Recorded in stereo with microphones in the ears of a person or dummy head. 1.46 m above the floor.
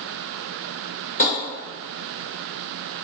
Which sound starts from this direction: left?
Tapping, at 1.2 s.